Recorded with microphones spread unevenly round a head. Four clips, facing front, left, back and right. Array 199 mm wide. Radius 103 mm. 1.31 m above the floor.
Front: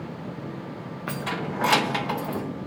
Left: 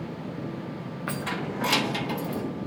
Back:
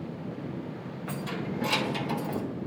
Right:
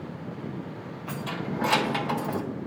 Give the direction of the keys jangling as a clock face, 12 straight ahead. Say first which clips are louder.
Left 1 dB, front 4 dB; 11 o'clock.